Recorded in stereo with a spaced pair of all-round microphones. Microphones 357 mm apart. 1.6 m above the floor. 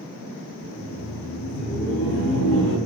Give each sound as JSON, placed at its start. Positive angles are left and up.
{"t": 0.6, "sound": "laughter", "side_deg": 75, "distance_m": 1.9}